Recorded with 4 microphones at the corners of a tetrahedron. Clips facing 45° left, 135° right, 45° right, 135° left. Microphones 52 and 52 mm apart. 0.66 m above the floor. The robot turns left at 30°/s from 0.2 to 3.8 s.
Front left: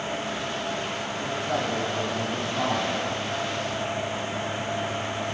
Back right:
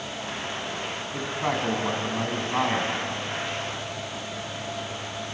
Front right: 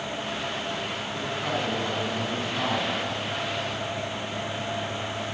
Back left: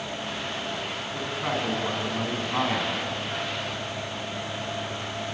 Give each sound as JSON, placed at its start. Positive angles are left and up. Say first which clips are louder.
{"t": 1.1, "sound": "a man speaking", "louder": "back right 1 dB, back left 1 dB", "azimuth_deg": -140, "distance_m": 6.5}